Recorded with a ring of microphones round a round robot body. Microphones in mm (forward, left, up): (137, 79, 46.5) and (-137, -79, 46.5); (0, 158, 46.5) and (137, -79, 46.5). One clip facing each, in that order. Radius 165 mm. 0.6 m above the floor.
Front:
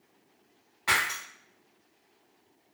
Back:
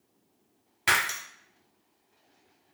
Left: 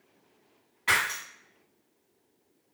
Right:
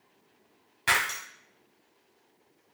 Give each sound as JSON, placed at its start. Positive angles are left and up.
{"t": 0.9, "sound": "breaking glass", "azimuth_deg": -110, "distance_m": 1.0}